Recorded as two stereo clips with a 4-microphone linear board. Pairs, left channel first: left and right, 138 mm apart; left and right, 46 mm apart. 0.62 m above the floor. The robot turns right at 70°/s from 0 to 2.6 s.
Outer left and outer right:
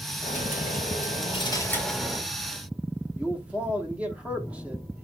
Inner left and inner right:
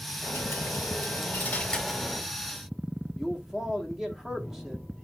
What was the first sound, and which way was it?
A dropped coin, 60° left.